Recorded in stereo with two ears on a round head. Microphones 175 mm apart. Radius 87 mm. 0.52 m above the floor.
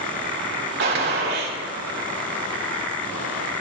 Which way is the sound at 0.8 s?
55° right (ahead or behind).